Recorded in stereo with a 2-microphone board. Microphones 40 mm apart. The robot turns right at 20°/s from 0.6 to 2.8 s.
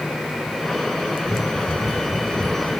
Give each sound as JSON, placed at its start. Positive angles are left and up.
{"t": 1.2, "sound": "running footsteps", "side_deg": -40, "distance_m": 3.0}